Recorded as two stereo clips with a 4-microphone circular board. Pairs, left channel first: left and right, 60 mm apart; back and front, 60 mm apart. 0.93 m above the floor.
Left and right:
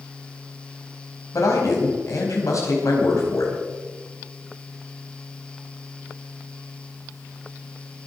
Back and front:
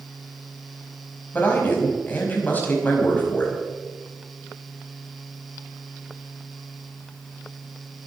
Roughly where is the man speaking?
Behind left.